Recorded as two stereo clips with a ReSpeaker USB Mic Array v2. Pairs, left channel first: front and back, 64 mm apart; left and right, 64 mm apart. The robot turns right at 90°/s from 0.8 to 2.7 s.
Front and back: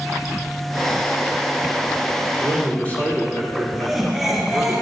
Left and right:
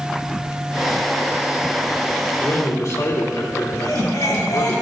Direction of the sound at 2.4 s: 35° left.